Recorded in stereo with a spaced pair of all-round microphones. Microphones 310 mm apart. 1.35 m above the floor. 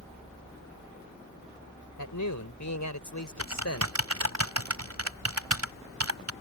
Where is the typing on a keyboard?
60° right (ahead or behind).